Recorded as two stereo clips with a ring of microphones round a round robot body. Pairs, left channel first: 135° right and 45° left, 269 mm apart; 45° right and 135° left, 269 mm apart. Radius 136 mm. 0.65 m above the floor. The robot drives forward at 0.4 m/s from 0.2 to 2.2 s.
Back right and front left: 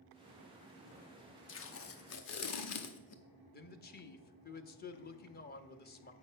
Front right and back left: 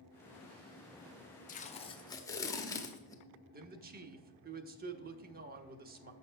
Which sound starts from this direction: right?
Tape being pulled, at 1.5 s.